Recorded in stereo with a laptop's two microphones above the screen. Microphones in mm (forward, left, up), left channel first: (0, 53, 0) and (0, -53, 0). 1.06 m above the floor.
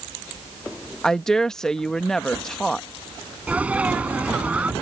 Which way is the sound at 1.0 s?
5° left (ahead or behind).